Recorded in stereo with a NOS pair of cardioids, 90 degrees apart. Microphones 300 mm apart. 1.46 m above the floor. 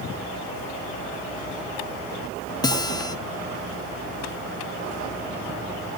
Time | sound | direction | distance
2.6 | a guitar | 15° left | 0.7 m